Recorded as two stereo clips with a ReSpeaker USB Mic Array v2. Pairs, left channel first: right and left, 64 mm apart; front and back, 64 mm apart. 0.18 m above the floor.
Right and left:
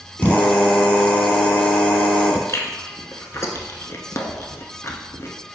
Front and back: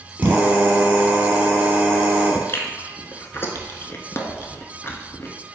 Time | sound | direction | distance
0.2 | a drill | 135° right | 1.0 m
2.5 | chewing | 50° right | 0.6 m